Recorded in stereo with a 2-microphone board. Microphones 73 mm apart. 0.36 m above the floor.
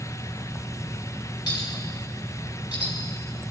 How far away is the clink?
About 3.5 m.